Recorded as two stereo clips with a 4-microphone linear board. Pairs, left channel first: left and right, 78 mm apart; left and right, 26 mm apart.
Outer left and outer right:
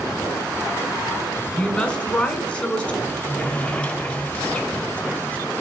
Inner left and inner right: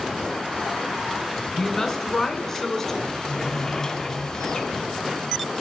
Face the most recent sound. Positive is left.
turn(degrees=15)  # may be behind; listen again after turning